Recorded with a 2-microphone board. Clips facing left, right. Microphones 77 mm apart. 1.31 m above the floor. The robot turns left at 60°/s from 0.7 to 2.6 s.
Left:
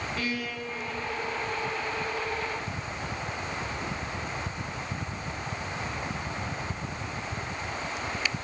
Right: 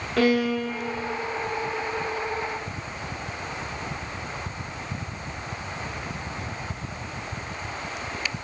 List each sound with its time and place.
0.2 s a violin: 80° right, 2 m; by 1.2 s 60° right (ahead or behind), 2 m